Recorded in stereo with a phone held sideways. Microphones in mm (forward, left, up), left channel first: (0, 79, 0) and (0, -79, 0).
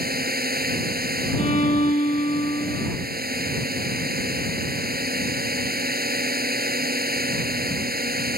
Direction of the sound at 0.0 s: 90° right.